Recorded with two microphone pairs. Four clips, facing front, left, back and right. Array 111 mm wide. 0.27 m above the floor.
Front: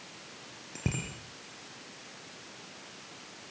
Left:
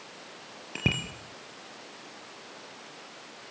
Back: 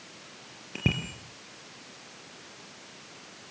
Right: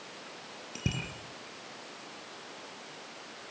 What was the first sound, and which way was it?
A bicycle bell, 95° left.